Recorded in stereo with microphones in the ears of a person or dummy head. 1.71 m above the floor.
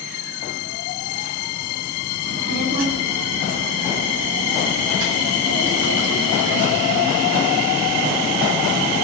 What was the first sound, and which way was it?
A child speaking, 55° right (ahead or behind).